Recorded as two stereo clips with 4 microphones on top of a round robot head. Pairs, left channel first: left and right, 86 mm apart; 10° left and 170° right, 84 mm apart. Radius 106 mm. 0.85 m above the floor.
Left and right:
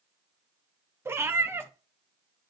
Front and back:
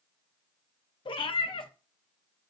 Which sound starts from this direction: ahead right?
A cat meowing, at 1.1 s.